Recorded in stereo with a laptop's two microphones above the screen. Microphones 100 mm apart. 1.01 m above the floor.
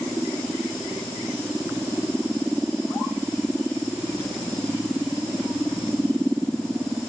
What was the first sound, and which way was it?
Only background noise.